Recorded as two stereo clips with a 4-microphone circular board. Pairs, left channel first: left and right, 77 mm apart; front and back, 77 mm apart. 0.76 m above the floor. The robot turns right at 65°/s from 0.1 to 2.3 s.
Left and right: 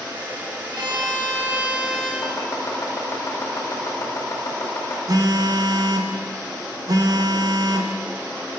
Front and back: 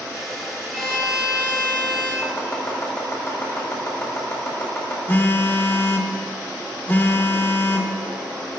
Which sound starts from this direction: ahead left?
Chopping, at 2.2 s.